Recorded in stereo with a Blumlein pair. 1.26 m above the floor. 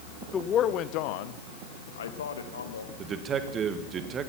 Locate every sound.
0.3 s a man speaking: 15° left, 0.7 m; by 2.9 s 75° left, 1.7 m
3.0 s a man speaking: 25° right, 1.6 m